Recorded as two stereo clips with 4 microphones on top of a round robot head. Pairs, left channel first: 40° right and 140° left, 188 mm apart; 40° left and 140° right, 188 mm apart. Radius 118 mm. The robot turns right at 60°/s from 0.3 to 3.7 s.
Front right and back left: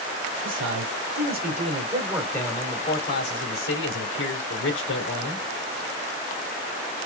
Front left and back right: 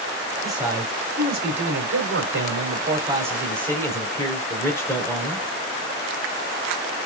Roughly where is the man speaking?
Behind left.